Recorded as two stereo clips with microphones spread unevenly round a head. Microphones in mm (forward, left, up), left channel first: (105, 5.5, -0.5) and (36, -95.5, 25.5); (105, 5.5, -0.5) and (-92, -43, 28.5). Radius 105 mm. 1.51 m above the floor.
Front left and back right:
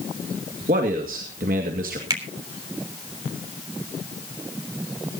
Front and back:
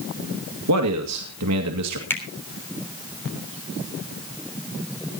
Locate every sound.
0.7 s a man speaking: 170° right, 2 m
2.1 s a finger snap: 70° right, 3.5 m